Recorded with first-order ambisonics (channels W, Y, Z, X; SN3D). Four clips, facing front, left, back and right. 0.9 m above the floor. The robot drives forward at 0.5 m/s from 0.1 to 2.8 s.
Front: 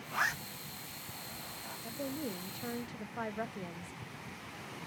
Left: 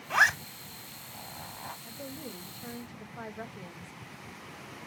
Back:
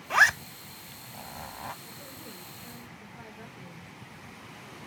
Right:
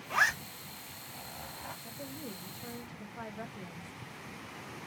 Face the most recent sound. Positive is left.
turn(degrees=10)